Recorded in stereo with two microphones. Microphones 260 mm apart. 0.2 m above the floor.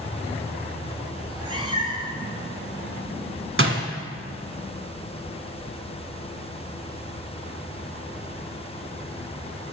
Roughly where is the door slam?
Right.